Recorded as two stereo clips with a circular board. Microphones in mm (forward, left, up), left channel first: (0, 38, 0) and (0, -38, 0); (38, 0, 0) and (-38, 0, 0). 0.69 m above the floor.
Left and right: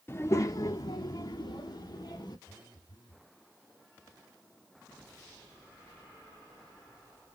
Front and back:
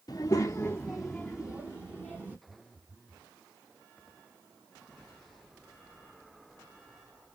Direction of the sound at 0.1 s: 30° left.